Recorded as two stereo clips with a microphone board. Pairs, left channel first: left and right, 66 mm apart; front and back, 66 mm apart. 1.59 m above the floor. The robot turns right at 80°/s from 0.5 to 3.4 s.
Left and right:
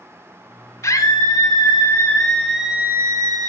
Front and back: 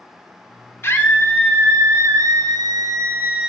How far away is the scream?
About 4 m.